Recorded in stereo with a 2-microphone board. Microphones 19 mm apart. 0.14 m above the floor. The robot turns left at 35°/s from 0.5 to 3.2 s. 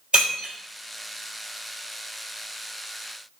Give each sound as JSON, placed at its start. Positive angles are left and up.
{"t": 0.1, "sound": "breaking glass", "side_deg": -65, "distance_m": 1.7}